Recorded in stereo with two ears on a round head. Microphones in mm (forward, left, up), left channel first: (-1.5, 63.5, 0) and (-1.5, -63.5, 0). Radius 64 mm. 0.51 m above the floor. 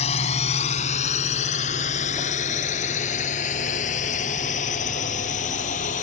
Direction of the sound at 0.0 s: 50° left (ahead or behind).